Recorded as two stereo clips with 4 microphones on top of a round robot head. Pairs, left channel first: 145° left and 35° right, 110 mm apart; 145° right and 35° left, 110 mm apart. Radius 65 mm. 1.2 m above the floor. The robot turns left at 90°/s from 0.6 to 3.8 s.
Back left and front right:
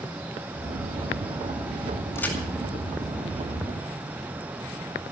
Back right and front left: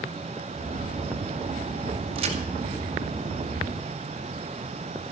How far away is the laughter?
I don't hear laughter.